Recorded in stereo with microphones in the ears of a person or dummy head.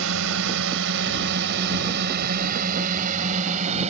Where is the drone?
85° right; by 3.9 s 35° right (ahead or behind).